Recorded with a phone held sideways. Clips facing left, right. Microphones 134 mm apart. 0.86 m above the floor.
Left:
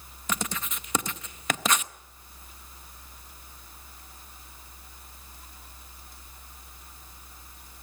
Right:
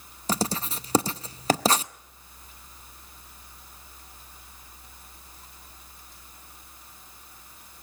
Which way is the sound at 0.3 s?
30° right (ahead or behind).